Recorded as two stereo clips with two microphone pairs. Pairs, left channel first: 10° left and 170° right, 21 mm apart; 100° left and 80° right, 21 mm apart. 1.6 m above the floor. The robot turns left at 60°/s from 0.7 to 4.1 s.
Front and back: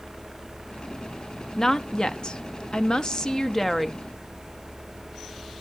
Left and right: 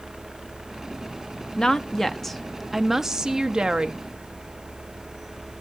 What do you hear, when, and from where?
1.6 s a woman speaking: 70° left, 0.7 m; by 4.0 s 75° right, 0.7 m